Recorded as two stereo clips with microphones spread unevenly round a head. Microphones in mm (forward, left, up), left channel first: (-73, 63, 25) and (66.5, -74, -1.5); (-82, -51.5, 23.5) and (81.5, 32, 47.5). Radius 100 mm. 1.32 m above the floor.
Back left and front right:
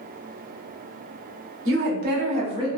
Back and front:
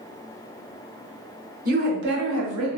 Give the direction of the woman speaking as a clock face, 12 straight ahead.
12 o'clock.